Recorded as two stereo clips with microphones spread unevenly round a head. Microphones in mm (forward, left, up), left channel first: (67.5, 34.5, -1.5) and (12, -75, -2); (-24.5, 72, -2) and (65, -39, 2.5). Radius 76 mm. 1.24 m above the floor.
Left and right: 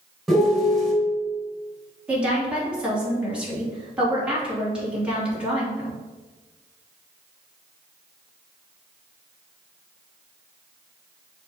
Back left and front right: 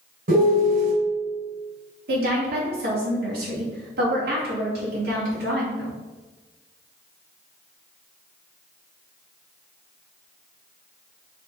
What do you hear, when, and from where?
0.3 s a piano: 25° right, 2.5 m
2.1 s a woman speaking: 35° right, 3 m